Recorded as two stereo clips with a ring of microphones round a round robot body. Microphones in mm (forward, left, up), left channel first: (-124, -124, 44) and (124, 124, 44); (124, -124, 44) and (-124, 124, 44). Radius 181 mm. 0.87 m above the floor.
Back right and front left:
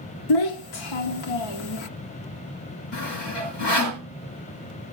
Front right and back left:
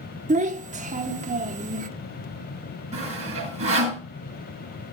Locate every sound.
0.3 s a child speaking: 155° right, 1.1 m
2.9 s sawing: 155° right, 6 m